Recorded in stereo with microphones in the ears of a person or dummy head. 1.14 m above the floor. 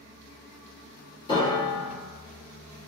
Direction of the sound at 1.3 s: 25° left (ahead or behind).